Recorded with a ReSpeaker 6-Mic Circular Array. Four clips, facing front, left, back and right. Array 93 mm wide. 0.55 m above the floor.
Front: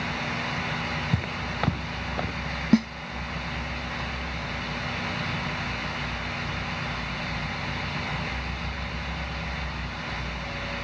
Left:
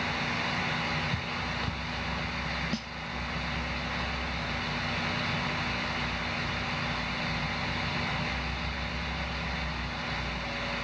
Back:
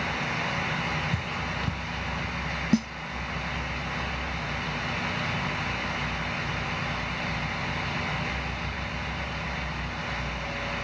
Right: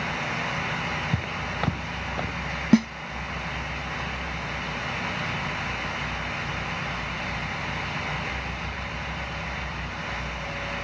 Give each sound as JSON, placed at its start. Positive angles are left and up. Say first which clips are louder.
{"t": 1.1, "sound": "footsteps", "louder": "right 4 dB, front 1 dB", "azimuth_deg": -40}
{"t": 2.7, "sound": "a snare drum", "louder": "right 17 dB, front 4 dB", "azimuth_deg": -70}